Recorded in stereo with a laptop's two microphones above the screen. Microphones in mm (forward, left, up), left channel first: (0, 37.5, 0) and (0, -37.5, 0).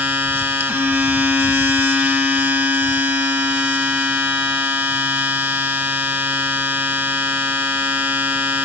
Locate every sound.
0.0 s a machine running: 30° right (ahead or behind), 1.0 m